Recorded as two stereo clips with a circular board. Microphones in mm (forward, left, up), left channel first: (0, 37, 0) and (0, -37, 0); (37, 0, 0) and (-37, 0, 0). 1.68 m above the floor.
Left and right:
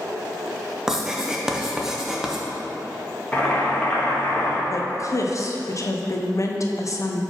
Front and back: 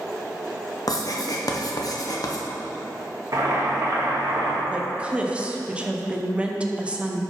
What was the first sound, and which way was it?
Writing, 10° right.